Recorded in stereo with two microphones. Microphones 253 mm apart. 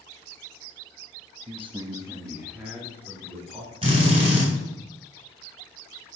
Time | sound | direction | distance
1.5 | a man speaking | 25° right (ahead or behind) | 1.0 m
3.8 | a drill | 20° right (ahead or behind) | 4 m